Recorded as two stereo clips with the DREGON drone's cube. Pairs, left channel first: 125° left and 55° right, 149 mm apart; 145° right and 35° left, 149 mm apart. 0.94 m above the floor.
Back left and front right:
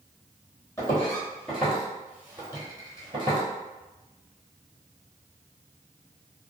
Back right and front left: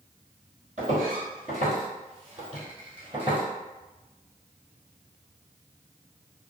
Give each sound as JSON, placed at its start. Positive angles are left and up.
{"t": 0.8, "sound": "footsteps", "azimuth_deg": 55, "distance_m": 1.7}